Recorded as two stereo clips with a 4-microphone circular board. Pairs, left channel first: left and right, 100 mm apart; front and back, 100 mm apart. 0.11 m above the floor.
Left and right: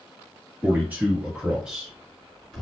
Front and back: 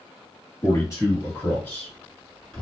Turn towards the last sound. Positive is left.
turn(degrees=50)